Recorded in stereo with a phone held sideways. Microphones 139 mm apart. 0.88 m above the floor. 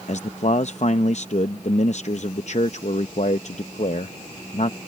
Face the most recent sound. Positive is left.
turn(degrees=55)  # may be behind; listen again after turning